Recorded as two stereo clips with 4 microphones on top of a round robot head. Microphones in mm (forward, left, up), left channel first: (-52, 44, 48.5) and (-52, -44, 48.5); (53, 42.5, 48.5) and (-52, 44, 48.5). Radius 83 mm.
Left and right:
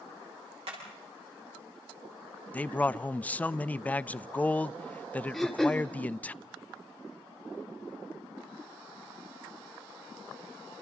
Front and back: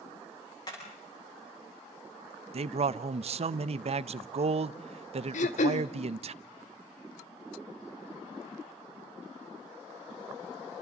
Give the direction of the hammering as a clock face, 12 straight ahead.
2 o'clock.